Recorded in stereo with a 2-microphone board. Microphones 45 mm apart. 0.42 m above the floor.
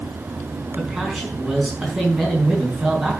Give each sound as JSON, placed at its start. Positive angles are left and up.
{"t": 0.8, "sound": "a man speaking", "side_deg": -10, "distance_m": 4.5}